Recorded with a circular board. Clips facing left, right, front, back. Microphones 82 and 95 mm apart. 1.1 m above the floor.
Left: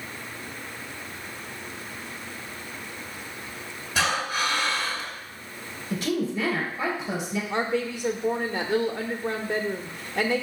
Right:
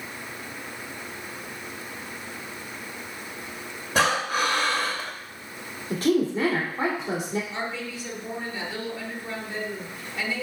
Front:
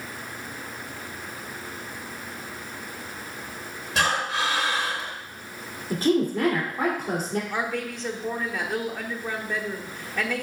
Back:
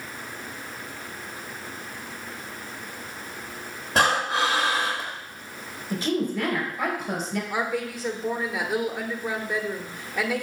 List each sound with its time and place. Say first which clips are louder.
4.0 s breathing: right 3 dB, back 3 dB; 130° right, 2.5 m
5.9 s a woman speaking: right 4 dB, front 4 dB; 45° right, 2.5 m
7.5 s a woman speaking: left 6 dB, back 1 dB; 100° left, 1.2 m